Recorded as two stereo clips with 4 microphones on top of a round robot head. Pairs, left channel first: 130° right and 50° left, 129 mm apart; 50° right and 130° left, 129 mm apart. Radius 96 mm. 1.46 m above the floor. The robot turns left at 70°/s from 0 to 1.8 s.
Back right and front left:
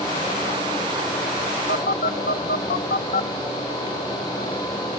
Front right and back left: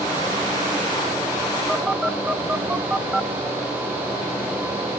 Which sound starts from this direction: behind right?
A phone buzzing, at 1.7 s.